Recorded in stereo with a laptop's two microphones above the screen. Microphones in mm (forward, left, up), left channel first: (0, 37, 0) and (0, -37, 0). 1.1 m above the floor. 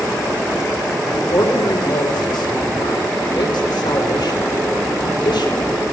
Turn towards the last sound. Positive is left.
turn(degrees=80)